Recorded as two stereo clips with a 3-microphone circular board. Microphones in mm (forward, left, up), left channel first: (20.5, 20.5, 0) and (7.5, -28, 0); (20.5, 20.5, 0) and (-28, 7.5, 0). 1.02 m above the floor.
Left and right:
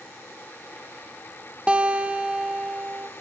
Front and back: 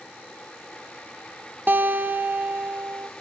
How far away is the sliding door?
No sliding door in this recording.